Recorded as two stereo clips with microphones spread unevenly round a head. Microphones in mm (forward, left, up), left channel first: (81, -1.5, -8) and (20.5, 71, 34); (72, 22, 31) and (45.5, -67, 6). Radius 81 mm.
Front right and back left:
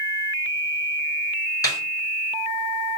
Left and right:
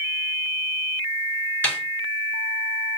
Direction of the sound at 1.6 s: 5° left.